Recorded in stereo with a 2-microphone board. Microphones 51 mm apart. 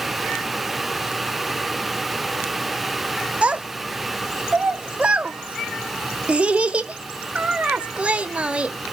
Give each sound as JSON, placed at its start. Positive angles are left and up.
{"t": 3.4, "sound": "a child speaking", "side_deg": -25, "distance_m": 0.9}